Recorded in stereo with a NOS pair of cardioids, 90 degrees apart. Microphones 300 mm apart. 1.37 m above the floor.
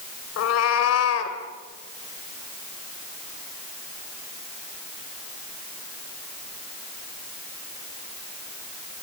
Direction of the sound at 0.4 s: 65° left.